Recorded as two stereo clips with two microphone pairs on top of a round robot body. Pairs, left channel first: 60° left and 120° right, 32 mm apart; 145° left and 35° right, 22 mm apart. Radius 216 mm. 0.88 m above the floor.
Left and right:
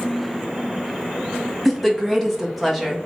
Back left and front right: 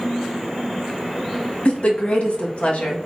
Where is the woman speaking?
150° left, 1.6 m.